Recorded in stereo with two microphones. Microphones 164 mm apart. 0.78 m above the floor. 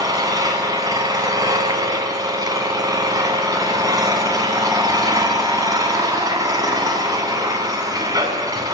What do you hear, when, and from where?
0.0 s an engine running: 25° right (ahead or behind), 2.5 m